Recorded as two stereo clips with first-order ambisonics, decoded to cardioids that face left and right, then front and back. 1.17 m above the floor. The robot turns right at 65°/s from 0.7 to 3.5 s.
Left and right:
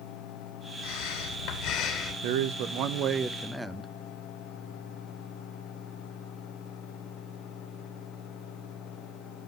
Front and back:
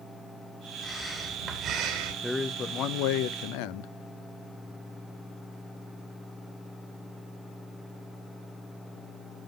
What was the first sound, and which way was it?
Breathing, 75° left.